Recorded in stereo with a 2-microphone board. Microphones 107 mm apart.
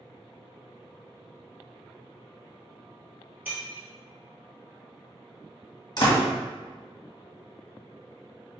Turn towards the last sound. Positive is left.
turn(degrees=45)  # may be behind; listen again after turning